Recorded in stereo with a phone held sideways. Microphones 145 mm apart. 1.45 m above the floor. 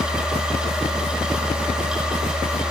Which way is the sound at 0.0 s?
5° right (ahead or behind).